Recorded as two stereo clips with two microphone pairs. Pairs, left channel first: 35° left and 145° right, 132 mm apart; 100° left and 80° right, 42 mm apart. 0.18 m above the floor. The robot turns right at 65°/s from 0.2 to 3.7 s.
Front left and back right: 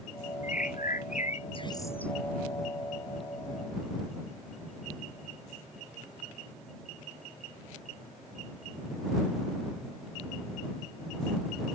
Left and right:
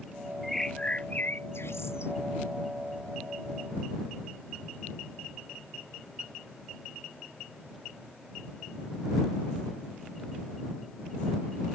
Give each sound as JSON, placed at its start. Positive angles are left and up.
{"t": 0.4, "sound": "a bird", "azimuth_deg": 10}